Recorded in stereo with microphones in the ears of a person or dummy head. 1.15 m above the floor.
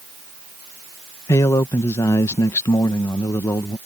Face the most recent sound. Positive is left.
turn(degrees=15)  # may be behind; listen again after turning